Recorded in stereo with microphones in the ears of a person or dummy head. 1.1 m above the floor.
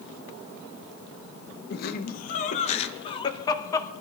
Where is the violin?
I don't hear a violin.